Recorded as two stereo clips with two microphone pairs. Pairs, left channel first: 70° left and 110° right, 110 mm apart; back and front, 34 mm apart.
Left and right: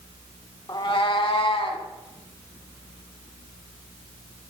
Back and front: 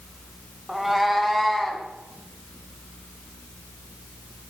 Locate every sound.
0.7 s a cat meowing: 80° left, 0.6 m; by 1.9 s 95° left, 1.4 m